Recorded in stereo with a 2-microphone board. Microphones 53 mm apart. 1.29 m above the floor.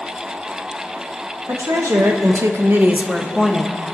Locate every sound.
1.5 s a woman speaking: 70° right (ahead or behind), 1.8 m; by 3.8 s 10° left (ahead or behind), 1.9 m